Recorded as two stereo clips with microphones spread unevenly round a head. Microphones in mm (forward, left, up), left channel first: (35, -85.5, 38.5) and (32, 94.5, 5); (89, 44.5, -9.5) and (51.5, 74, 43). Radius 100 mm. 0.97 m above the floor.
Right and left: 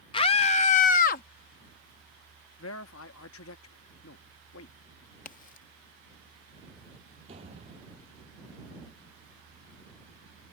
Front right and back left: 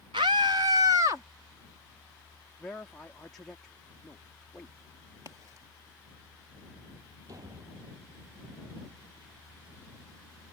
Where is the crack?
145° right.